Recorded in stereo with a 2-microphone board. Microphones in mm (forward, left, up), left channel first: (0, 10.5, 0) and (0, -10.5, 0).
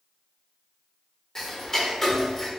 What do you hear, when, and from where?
1.4 s ticking: 15° left (ahead or behind), 1.4 m